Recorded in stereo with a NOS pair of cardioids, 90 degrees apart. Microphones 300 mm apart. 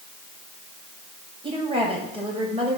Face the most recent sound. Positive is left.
turn(degrees=-20)